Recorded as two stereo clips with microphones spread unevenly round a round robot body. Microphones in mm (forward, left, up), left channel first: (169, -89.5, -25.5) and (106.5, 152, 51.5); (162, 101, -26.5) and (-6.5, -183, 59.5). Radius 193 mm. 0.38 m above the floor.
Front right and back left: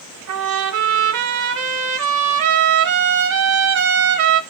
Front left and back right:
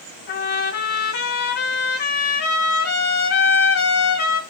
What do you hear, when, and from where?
0.3 s a trumpet: 115° left, 1.5 m